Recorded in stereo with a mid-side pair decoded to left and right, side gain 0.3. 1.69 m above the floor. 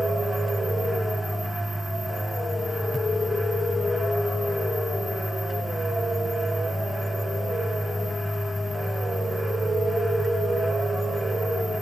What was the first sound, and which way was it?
A fan, 15° left.